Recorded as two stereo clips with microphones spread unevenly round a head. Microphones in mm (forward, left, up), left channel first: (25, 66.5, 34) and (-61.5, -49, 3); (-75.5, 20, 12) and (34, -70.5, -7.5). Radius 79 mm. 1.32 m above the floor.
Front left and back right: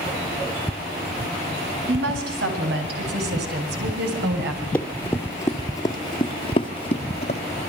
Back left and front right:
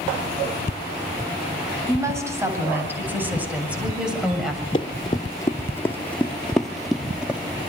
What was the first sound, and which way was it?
A woman speaking, 110° right.